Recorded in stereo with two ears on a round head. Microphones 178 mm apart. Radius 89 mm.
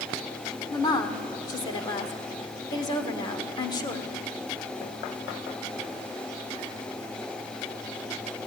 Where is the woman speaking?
20° left (ahead or behind), 1.7 m.